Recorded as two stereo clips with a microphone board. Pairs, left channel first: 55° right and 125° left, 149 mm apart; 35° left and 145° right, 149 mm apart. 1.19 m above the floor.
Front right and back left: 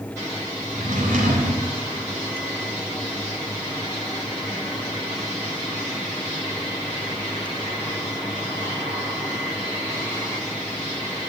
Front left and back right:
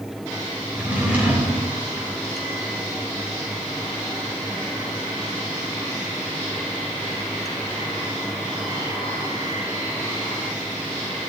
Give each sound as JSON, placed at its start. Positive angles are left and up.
{"t": 0.7, "sound": "a drawer", "azimuth_deg": 135, "distance_m": 3.5}